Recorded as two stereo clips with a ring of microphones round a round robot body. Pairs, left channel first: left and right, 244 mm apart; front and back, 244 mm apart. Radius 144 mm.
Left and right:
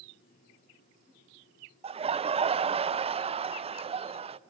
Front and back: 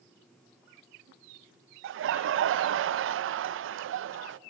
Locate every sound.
1.8 s laughter: 155° right, 0.5 m